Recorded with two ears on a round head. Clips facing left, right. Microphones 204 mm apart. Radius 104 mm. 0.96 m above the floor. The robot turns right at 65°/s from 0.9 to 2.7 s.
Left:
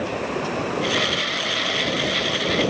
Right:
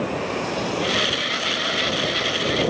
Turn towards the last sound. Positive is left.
No sound to turn to.